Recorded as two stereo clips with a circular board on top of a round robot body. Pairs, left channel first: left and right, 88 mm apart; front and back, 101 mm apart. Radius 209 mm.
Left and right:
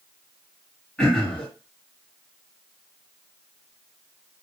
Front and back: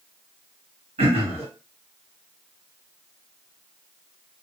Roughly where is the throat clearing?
Behind.